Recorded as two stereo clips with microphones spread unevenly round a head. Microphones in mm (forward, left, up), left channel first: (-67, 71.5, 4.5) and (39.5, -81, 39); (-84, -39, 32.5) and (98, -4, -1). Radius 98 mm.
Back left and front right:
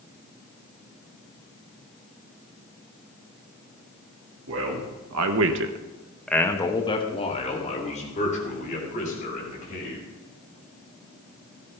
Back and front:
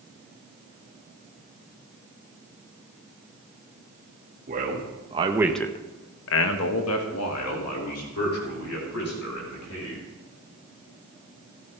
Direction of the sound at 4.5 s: 30° right.